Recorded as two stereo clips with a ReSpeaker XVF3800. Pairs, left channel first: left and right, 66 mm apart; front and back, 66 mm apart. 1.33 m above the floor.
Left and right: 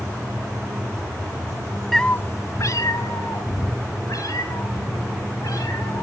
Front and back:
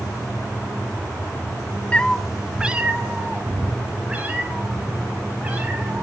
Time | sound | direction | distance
1.9 | a cat meowing | 5° left | 0.5 m